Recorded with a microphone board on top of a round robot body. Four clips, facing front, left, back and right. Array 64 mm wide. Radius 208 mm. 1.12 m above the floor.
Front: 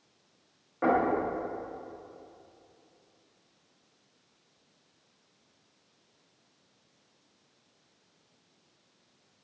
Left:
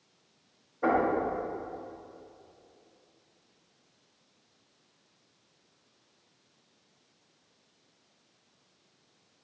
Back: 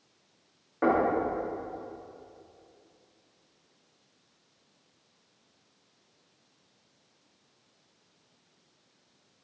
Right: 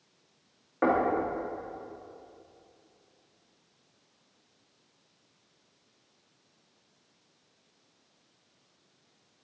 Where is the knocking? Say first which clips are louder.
Right 1 dB, back 1 dB; 95° right, 2.5 m.